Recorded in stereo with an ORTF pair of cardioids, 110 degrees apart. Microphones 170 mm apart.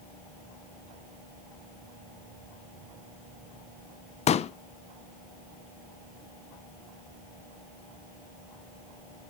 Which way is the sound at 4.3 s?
40° left.